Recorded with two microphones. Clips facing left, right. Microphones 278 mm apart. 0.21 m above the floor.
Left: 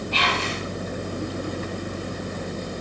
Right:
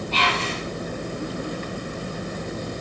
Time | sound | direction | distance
0.1 | whispering | 20° left (ahead or behind) | 3 m